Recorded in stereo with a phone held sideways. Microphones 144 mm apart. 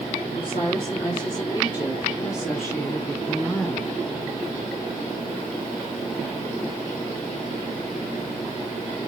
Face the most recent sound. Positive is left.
turn(degrees=15)  # may be behind; listen again after turning